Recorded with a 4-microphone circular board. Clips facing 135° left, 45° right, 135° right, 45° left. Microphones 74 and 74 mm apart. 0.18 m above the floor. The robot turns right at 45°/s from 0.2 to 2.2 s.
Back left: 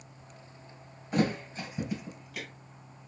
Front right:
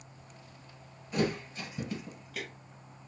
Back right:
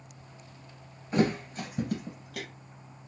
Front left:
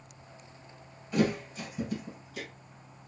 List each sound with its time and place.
1.1 s a thud: straight behind, 1.5 m; by 2.5 s 135° right, 1.5 m